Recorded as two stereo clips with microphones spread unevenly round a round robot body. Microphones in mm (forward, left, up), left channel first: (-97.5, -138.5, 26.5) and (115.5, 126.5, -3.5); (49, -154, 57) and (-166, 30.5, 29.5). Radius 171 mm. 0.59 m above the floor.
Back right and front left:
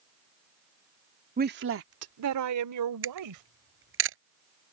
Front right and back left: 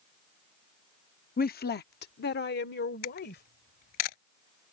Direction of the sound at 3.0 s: 5° right.